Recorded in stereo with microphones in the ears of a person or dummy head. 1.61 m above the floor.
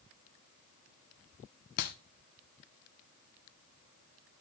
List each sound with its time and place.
1.8 s a clap: 40° left (ahead or behind), 0.8 m